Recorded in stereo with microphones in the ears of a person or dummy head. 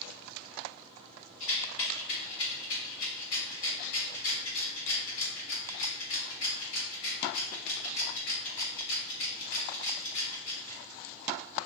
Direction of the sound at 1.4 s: 70° left (ahead or behind).